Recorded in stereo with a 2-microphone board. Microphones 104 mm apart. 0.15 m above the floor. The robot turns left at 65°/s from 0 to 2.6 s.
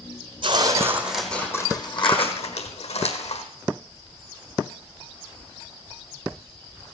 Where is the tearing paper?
130° right, 1.8 m; by 3.5 s 90° left, 1.8 m.